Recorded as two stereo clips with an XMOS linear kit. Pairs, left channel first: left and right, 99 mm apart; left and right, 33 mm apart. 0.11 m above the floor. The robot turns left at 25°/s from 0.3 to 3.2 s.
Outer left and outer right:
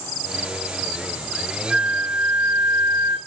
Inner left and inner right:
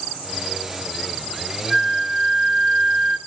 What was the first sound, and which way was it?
A flute, 10° right.